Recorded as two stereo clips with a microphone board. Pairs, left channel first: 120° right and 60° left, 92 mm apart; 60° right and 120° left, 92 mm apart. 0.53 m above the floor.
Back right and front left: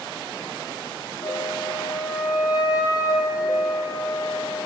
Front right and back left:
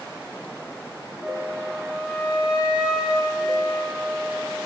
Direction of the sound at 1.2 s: 160° right.